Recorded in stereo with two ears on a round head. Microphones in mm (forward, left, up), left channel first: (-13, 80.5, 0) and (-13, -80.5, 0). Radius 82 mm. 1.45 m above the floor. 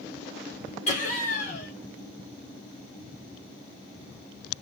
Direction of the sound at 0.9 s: 40° left (ahead or behind).